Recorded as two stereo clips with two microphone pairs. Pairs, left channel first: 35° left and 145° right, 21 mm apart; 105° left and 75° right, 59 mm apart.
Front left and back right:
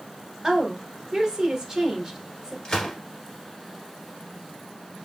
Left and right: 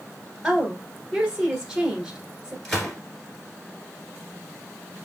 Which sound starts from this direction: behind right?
A woman speaking, at 0.4 s.